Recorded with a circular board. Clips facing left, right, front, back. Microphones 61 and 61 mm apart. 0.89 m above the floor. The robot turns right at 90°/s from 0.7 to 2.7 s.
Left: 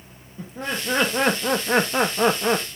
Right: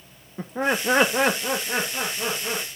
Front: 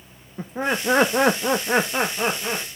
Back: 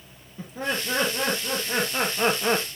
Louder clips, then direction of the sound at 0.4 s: Right 5 dB, front 5 dB; 50° right.